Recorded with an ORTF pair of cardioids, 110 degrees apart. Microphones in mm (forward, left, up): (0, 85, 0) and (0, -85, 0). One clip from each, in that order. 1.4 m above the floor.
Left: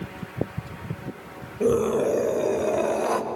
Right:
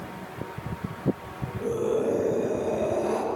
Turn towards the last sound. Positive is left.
turn(degrees=80)